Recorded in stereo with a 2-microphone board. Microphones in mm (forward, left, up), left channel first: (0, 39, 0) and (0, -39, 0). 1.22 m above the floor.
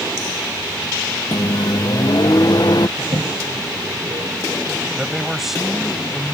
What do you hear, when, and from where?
1.3 s a microwave: 60° left (ahead or behind)
3.0 s a toilet flushing: 60° right (ahead or behind)
5.0 s a man speaking: 5° right (ahead or behind)